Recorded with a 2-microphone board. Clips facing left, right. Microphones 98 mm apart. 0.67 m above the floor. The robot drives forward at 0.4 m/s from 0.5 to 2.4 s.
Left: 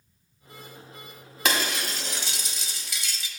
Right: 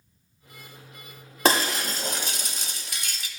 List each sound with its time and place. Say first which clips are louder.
1.4 s breaking glass: right 4 dB; 35° right (ahead or behind), 1.0 m; by 3.3 s 50° right (ahead or behind), 0.8 m